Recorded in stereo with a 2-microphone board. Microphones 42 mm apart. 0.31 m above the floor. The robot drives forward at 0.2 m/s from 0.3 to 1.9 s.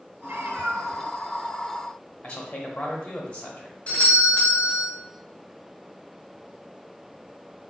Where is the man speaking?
35° left (ahead or behind), 1.0 m.